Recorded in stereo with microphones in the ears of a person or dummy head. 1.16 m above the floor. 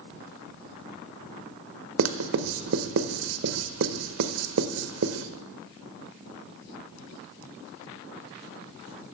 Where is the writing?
80° right, 0.7 m.